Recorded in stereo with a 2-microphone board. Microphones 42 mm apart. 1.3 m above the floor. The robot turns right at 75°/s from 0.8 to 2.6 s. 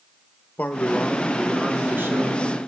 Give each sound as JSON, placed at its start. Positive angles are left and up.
{"t": 0.6, "sound": "a man speaking", "azimuth_deg": 145, "distance_m": 1.0}